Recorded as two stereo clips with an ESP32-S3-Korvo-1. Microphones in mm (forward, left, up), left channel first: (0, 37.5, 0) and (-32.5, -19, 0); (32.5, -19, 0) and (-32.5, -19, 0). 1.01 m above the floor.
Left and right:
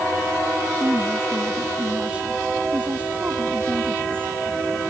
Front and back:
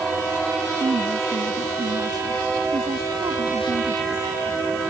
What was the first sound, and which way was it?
A woman speaking, 165° left.